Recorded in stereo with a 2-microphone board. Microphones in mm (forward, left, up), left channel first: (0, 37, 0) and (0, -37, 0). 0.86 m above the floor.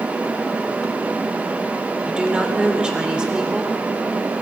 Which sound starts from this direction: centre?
A woman speaking, at 2.0 s.